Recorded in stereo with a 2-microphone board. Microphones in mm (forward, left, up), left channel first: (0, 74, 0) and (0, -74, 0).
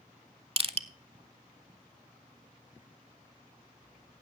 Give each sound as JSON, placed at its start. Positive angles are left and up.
{"t": 0.6, "sound": "crushing", "side_deg": -40, "distance_m": 0.5}